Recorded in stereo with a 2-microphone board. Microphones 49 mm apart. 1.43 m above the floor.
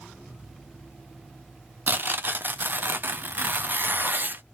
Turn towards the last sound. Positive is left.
turn(degrees=-45)  # may be behind; listen again after turning